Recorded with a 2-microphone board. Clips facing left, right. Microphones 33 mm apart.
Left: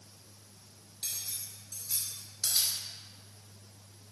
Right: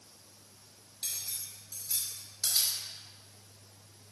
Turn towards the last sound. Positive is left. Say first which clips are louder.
# even
turn(degrees=0)  # may be behind; listen again after turning